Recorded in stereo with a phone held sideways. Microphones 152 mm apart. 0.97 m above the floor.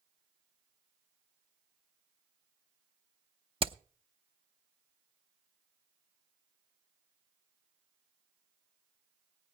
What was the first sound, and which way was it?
Hammering, 35° right (ahead or behind).